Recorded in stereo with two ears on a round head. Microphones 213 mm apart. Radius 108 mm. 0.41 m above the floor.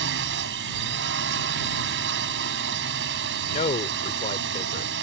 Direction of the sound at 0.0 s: 50° right (ahead or behind).